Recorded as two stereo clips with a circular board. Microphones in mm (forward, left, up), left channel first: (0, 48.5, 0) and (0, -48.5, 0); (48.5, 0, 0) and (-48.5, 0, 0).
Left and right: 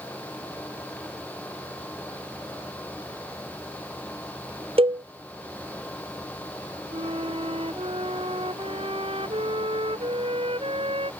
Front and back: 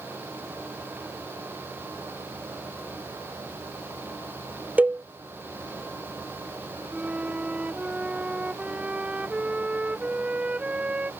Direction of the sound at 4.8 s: 105° right.